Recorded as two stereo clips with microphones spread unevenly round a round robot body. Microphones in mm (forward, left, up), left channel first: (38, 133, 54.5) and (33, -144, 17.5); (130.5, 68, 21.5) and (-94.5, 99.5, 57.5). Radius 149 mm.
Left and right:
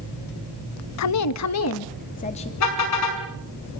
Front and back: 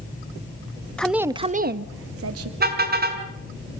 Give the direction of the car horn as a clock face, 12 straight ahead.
8 o'clock.